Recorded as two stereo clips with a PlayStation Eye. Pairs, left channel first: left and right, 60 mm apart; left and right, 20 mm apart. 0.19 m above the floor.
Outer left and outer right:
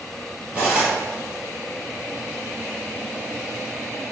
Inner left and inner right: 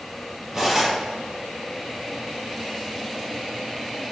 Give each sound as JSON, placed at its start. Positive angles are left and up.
{"t": 0.5, "sound": "cutlery clinking", "side_deg": -20, "distance_m": 2.5}